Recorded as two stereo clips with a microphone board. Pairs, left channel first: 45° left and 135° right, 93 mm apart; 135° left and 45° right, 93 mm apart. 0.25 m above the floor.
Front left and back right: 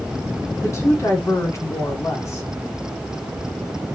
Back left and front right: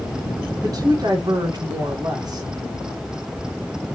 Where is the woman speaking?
10° right, 1.9 m.